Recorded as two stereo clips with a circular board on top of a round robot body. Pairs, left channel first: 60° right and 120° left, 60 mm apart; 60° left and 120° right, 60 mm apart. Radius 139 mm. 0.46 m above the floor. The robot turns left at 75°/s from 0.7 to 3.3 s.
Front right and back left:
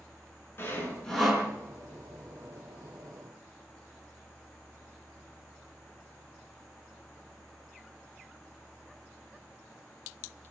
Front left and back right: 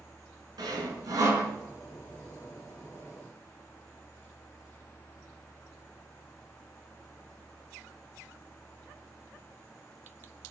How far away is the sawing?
About 4 m.